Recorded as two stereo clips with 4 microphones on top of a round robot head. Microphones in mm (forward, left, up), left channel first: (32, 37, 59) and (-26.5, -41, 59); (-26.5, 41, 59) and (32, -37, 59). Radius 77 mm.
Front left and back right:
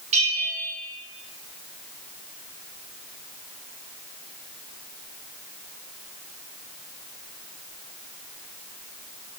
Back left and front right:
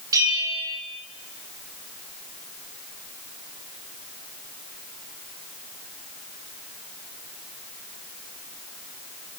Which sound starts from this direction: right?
A bell, at 0.1 s.